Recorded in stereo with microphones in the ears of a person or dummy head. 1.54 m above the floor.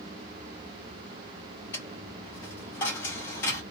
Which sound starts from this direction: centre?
A dropped coin, at 1.7 s.